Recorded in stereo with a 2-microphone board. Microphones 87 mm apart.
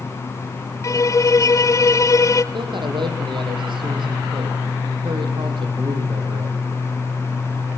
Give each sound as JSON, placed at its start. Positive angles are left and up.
{"t": 0.8, "sound": "a violin", "side_deg": 40, "distance_m": 0.9}
{"t": 2.5, "sound": "a man speaking", "side_deg": -65, "distance_m": 7.0}